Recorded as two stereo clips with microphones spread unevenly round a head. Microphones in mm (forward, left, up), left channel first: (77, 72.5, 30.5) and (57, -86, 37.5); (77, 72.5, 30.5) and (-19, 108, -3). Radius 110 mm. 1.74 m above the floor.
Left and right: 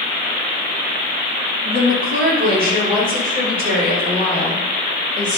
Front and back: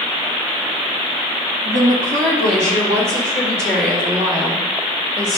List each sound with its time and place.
1.6 s a woman speaking: 150° right, 1.5 m; by 5.4 s 145° right, 5.5 m